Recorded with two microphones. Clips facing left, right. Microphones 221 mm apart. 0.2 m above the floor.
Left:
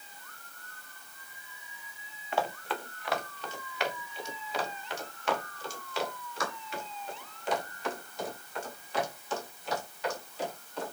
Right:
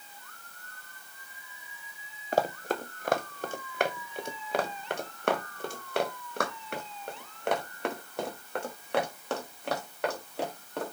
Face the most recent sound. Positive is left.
turn(degrees=-65)  # may be behind; listen again after turning